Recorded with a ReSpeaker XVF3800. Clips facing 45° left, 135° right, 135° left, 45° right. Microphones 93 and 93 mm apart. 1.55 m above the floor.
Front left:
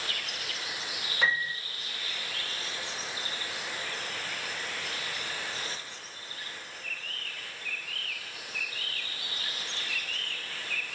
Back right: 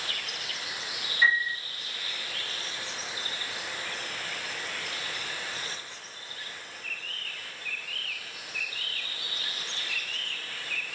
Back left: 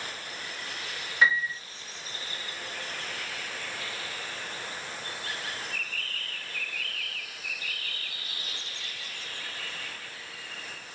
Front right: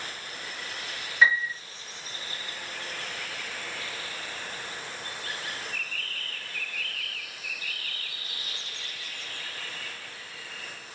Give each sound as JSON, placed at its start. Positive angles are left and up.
{"t": 1.2, "sound": "a piano", "azimuth_deg": 50, "distance_m": 5.5}